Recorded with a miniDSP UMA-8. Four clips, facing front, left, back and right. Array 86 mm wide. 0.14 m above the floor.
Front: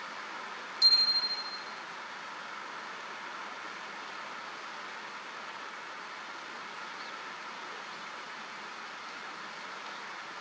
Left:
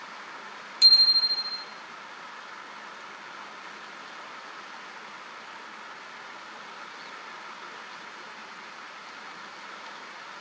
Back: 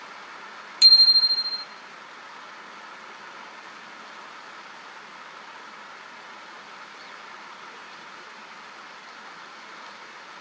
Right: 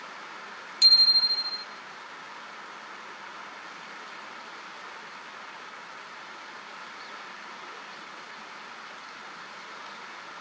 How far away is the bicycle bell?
About 3 m.